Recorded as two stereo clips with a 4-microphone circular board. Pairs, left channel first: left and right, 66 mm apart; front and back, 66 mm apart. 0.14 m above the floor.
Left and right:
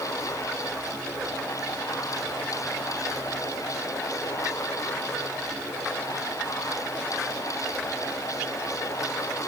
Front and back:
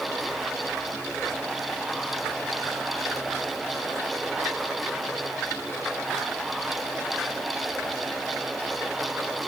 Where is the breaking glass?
I don't hear breaking glass.